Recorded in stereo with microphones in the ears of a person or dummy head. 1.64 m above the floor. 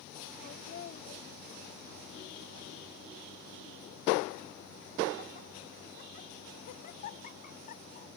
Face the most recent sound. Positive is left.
turn(degrees=35)  # may be behind; listen again after turning